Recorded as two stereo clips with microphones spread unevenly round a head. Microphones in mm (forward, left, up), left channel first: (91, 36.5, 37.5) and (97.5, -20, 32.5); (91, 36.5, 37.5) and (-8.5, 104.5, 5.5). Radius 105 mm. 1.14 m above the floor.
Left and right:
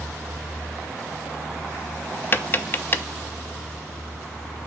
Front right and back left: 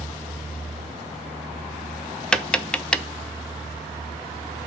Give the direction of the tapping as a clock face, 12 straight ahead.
10 o'clock.